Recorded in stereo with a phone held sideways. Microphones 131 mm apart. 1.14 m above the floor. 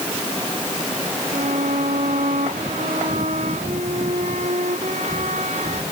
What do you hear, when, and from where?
1.3 s a violin: 65° right (ahead or behind)